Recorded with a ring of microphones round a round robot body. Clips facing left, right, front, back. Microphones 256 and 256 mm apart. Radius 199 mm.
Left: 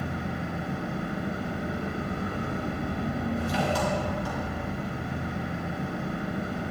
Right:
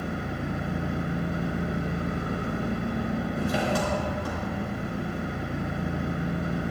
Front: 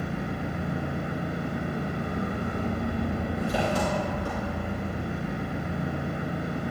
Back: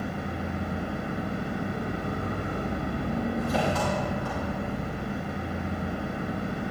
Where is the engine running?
65° right, 3.5 m.